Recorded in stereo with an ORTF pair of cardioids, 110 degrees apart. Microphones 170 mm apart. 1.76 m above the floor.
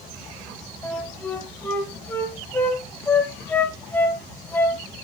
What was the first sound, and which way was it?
A flute, 15° left.